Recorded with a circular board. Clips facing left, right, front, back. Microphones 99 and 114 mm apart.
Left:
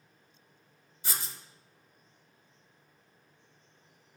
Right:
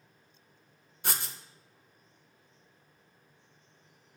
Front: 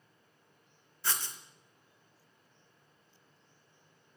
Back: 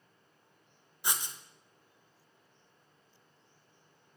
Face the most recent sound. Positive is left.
turn(degrees=-105)